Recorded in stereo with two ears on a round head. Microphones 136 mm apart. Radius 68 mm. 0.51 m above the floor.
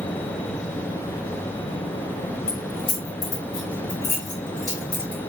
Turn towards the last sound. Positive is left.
turn(degrees=65)  # may be behind; listen again after turning